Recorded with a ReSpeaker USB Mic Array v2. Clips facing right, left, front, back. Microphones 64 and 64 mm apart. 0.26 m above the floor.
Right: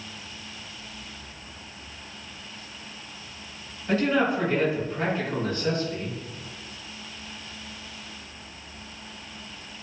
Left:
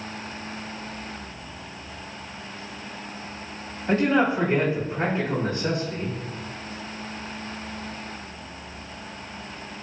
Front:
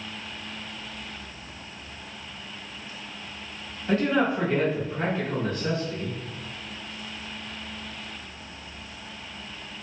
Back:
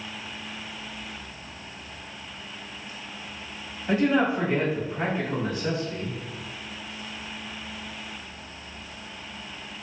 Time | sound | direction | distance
3.9 | a man speaking | 115° left | 1.4 m